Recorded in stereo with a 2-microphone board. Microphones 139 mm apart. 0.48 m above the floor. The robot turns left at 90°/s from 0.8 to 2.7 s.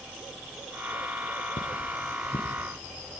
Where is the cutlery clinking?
65° left (ahead or behind), 4 m; by 2.6 s 25° left (ahead or behind), 4 m.